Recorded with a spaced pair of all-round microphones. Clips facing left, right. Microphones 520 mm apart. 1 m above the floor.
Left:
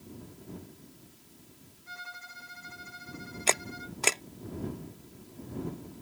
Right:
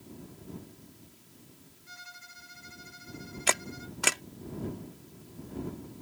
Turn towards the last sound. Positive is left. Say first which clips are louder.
# left 2 dB
turn(degrees=-35)  # may be behind; listen again after turning